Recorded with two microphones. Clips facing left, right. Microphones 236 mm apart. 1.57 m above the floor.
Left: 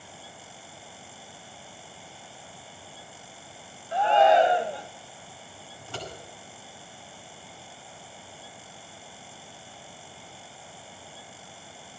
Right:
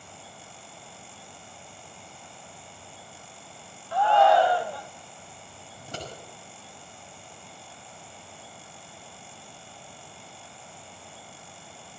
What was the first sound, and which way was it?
A shout, 20° left (ahead or behind).